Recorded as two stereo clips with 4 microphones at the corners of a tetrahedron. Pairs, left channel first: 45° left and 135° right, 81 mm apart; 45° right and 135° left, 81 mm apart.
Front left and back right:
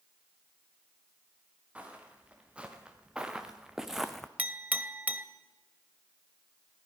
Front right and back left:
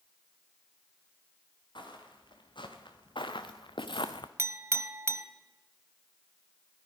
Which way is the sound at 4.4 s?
160° left.